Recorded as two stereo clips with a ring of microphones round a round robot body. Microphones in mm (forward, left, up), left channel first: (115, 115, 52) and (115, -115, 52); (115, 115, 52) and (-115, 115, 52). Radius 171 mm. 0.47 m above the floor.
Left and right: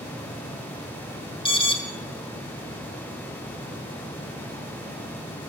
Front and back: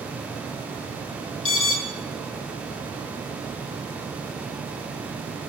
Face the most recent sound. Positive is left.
turn(degrees=20)